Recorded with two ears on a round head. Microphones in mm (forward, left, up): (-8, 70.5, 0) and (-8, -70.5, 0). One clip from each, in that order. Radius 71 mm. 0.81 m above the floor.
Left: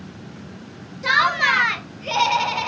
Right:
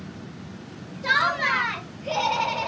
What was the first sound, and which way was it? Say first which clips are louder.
Laughter: left 4 dB; 40° left (ahead or behind).